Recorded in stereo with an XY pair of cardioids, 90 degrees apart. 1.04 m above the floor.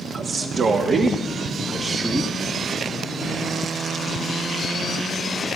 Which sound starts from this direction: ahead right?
A man speaking, at 0.1 s.